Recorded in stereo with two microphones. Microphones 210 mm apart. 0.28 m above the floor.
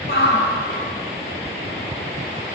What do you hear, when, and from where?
0.1 s a shout: 50° left (ahead or behind), 1.7 m